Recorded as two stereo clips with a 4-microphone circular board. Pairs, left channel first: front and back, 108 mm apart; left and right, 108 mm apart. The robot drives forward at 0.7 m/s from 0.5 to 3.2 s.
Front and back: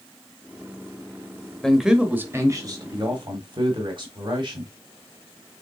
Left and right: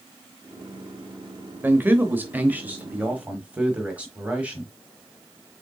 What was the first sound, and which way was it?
A man speaking, 75° right.